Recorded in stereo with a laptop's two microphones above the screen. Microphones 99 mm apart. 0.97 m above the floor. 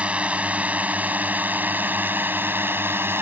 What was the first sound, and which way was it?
A drone, 15° right (ahead or behind).